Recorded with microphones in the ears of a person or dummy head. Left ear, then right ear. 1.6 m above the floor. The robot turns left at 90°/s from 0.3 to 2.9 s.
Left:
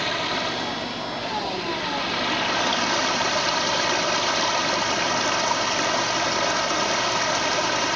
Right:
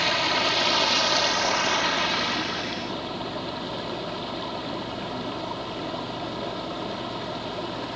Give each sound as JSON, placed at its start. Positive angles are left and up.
{"t": 0.0, "sound": "running water", "azimuth_deg": -10}